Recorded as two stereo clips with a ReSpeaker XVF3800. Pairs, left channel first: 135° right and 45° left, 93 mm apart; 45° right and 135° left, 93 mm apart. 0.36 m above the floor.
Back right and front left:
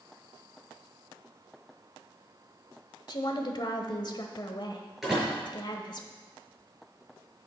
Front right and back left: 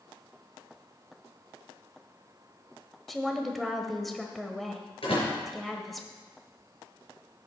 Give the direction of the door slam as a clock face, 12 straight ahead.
1 o'clock.